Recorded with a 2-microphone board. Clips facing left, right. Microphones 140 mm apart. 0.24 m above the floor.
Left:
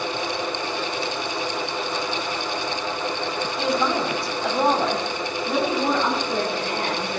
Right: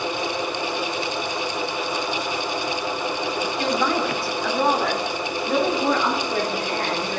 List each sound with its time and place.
3.6 s a woman speaking: 5° left (ahead or behind), 1.1 m; by 7.2 s 30° left (ahead or behind), 3.5 m